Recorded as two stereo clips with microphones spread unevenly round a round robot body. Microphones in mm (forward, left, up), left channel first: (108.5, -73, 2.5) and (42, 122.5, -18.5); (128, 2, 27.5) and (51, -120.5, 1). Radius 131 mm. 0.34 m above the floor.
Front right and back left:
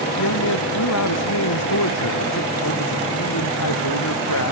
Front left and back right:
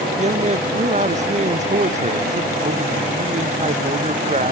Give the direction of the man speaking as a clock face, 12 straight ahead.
3 o'clock.